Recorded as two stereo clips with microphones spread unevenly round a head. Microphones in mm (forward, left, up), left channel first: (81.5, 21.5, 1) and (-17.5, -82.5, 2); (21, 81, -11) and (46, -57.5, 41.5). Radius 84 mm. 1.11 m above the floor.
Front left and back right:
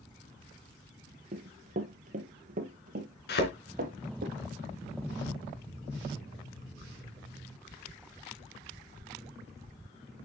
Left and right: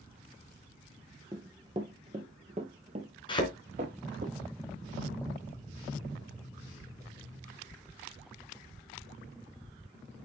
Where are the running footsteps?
115° right, 1.5 m; by 4.3 s 110° right, 3 m.